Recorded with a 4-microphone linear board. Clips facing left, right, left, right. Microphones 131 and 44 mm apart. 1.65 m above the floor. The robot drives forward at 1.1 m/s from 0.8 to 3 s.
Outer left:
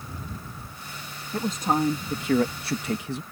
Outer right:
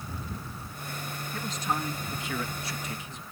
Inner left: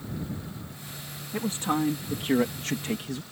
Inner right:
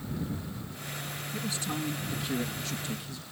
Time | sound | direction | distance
1.3 | a man speaking | 40° left (ahead or behind) | ?